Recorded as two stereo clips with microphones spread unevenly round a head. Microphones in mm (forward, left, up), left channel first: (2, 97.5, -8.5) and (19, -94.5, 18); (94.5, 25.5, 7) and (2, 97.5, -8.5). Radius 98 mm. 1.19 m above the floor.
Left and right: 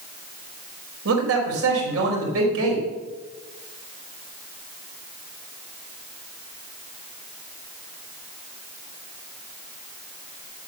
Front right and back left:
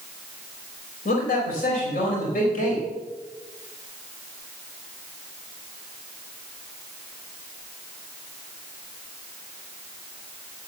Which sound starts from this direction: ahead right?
A man speaking, at 1.1 s.